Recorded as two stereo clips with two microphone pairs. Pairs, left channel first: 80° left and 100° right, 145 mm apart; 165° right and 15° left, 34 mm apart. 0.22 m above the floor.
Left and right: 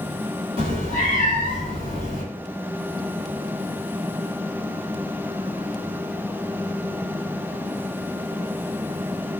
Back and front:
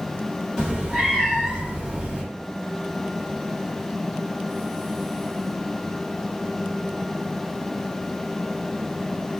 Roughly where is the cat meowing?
Ahead right.